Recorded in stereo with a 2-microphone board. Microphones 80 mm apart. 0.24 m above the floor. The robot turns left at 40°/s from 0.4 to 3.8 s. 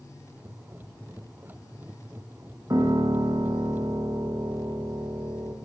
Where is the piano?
50° right, 8 m; by 5.5 s 95° right, 8 m.